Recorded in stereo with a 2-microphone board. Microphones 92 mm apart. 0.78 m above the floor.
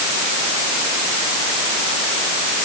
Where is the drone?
I don't hear a drone.